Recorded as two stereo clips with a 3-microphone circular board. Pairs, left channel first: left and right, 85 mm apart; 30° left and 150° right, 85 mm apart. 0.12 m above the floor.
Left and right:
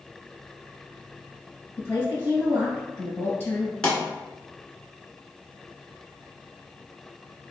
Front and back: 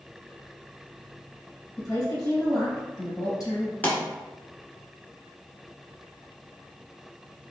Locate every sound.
1.8 s a woman speaking: 35° left, 1.9 m
3.8 s a pop: 35° left, 1.2 m